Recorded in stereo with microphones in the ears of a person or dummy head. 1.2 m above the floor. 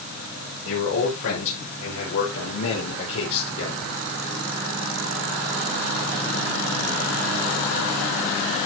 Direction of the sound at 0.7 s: 85° left.